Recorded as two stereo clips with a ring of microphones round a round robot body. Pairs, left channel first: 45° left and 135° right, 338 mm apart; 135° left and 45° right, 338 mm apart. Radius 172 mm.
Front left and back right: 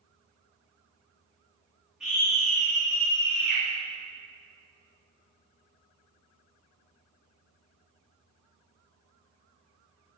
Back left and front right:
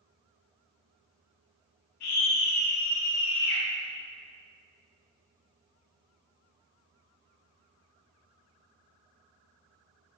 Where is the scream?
135° left, 5.5 m.